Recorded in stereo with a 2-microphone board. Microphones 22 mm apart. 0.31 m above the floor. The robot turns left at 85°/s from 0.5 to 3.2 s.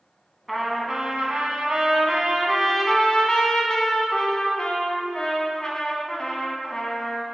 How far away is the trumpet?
About 1.0 m.